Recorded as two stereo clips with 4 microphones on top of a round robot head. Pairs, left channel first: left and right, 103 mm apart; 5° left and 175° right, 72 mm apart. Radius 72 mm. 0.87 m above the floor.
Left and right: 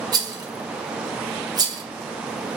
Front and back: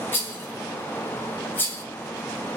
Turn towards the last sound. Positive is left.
turn(degrees=-55)